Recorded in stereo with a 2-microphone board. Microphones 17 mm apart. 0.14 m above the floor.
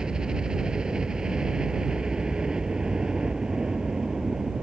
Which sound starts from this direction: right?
A helicopter, at 0.0 s.